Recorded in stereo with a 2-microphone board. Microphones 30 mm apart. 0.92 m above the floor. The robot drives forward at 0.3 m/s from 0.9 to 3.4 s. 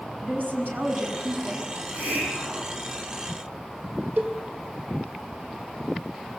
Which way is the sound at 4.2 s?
60° right (ahead or behind).